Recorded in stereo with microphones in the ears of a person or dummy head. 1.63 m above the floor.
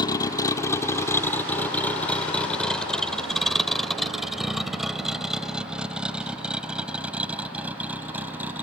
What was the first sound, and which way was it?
A vehicle, 25° left (ahead or behind).